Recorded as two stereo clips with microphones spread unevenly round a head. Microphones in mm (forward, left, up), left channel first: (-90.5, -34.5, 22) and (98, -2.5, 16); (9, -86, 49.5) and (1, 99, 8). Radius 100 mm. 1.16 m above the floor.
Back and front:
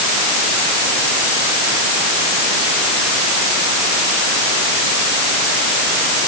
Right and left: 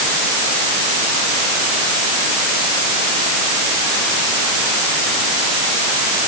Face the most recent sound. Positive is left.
No sound to turn to.